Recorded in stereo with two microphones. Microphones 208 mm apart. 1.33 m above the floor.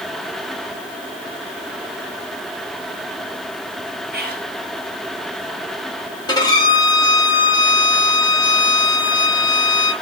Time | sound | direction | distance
4.1 | whispering | 50° right (ahead or behind) | 0.8 m
6.3 | a violin | 20° left (ahead or behind) | 0.8 m